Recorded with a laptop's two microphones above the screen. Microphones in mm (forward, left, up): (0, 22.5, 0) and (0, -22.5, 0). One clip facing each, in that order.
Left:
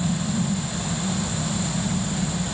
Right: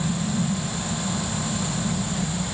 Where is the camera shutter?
No camera shutter in this recording.